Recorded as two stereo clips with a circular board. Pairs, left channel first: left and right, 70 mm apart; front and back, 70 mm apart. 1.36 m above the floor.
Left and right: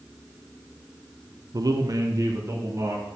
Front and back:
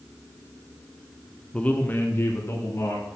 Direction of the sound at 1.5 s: 75° right.